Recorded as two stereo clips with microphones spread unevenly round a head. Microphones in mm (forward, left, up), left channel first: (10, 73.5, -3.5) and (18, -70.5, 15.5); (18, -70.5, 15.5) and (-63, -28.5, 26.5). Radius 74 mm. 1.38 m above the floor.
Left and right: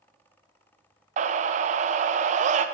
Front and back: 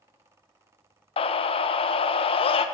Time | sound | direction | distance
1.2 | a scream | 45° right | 0.9 m